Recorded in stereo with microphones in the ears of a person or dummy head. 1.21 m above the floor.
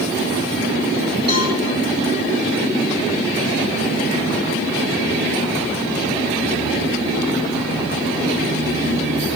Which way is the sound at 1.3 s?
25° right (ahead or behind).